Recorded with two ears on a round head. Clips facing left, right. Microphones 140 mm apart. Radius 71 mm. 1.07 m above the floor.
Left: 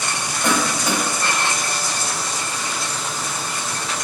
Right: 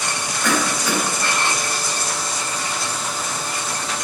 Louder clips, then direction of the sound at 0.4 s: Left 1 dB; 20° left (ahead or behind).